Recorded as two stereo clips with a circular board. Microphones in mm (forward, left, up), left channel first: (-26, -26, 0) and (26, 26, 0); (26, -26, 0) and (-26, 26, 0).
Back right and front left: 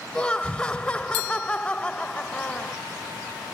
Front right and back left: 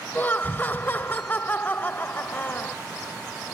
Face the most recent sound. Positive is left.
turn(degrees=-80)